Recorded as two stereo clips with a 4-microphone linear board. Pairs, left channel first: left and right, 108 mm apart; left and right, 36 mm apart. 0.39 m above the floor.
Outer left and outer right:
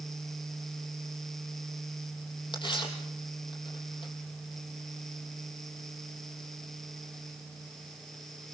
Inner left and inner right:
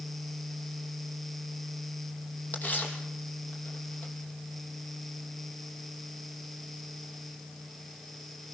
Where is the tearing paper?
45° left (ahead or behind), 6.5 m.